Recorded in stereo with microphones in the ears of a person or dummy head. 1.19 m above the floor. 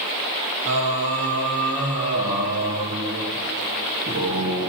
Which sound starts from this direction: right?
Singing, at 0.7 s.